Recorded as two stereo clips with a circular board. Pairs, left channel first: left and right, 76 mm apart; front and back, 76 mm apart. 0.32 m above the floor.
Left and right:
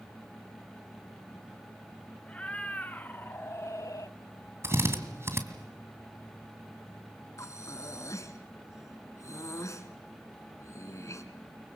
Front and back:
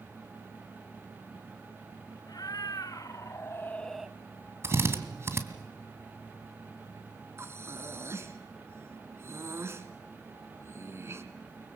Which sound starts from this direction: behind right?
A drill, at 4.6 s.